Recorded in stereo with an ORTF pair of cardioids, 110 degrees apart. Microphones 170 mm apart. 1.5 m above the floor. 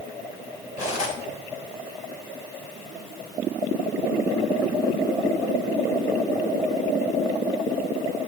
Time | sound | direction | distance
0.8 | cutlery clinking | 50° left | 6 m